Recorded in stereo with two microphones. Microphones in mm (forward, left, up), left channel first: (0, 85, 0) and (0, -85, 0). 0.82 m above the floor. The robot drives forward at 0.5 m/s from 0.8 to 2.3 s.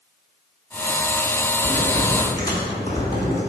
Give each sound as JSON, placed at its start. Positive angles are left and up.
{"t": 1.6, "sound": "typing on a keyboard", "side_deg": 25, "distance_m": 2.5}